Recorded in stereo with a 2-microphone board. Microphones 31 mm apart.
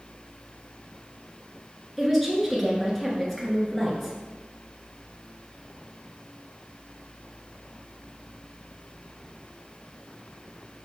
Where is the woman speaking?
Centre (ahead or behind), 1.1 m.